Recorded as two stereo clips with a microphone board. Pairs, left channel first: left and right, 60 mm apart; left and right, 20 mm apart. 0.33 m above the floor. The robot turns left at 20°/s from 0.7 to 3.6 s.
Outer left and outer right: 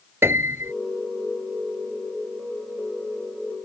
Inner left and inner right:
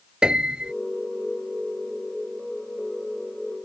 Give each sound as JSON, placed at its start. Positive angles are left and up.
{"t": 0.2, "sound": "a piano", "side_deg": -45}